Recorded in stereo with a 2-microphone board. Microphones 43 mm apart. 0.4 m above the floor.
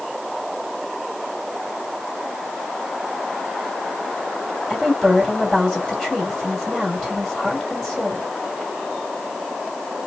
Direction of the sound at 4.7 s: Centre (ahead or behind).